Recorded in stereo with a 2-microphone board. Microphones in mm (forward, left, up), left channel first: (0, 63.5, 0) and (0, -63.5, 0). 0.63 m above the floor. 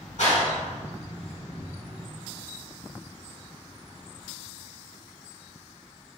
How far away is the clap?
About 2.0 m.